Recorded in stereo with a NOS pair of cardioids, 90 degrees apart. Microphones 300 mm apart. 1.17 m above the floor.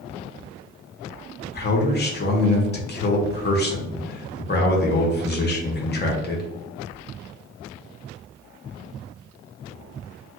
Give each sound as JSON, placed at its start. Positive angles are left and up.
{"t": 1.4, "sound": "a man speaking", "azimuth_deg": 35, "distance_m": 1.0}